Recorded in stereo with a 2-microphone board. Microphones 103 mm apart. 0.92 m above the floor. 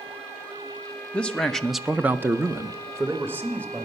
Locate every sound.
1.1 s a man speaking: 10° left (ahead or behind), 1.0 m; by 3.9 s 25° right (ahead or behind), 1.9 m